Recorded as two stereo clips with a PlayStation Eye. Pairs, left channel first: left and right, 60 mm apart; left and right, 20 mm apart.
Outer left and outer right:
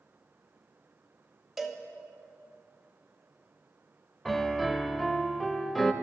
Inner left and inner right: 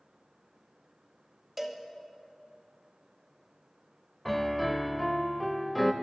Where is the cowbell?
Centre (ahead or behind), 1.2 m.